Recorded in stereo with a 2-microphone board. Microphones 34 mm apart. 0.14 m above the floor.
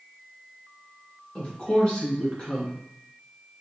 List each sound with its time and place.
1.4 s a woman speaking: 30° left (ahead or behind), 1.7 m